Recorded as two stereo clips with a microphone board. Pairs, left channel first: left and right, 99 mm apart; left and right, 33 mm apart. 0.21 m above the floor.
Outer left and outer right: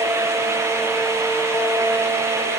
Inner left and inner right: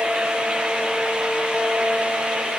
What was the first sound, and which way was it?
Only background noise.